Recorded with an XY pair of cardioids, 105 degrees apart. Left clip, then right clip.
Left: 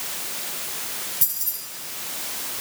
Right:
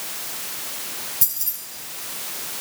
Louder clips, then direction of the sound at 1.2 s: Right 1 dB; 20° right.